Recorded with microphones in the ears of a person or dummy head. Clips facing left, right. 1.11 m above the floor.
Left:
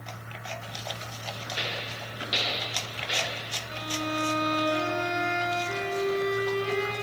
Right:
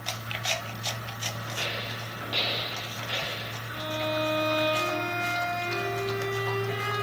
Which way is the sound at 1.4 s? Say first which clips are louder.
Even; 25° left (ahead or behind).